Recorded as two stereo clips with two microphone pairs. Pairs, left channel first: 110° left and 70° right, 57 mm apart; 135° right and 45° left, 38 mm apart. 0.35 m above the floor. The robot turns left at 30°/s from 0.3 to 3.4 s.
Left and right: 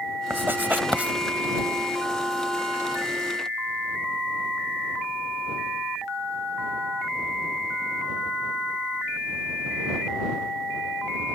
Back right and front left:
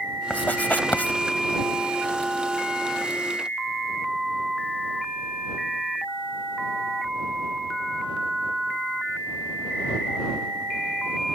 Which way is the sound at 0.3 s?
105° right.